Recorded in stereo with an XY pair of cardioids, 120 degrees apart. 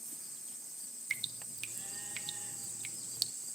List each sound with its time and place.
1.1 s dripping: 35° right, 0.8 m